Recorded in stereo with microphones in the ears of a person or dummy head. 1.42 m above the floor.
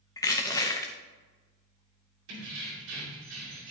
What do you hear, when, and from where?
0.2 s crushing: 20° left (ahead or behind), 1.0 m
2.3 s keys jangling: 80° right, 3 m